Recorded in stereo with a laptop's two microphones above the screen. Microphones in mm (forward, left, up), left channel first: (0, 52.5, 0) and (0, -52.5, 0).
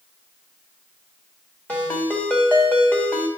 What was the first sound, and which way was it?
A ringtone, 15° left (ahead or behind).